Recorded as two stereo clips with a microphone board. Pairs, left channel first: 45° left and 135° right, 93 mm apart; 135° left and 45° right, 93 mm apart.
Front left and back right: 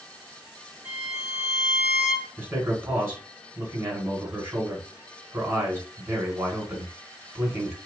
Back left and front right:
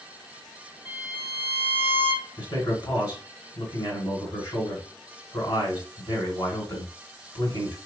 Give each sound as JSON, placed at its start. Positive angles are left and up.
{"t": 0.8, "sound": "a violin", "azimuth_deg": 160, "distance_m": 1.9}
{"t": 2.4, "sound": "a man speaking", "azimuth_deg": 170, "distance_m": 2.5}